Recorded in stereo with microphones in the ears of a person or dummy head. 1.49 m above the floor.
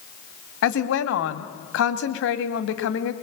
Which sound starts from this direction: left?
A woman speaking, at 0.6 s.